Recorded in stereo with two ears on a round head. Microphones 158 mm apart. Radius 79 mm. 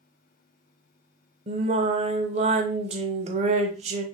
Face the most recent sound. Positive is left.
turn(degrees=-35)  # may be behind; listen again after turning